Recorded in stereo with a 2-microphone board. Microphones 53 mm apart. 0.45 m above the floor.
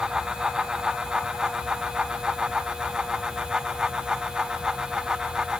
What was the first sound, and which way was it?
Only background noise.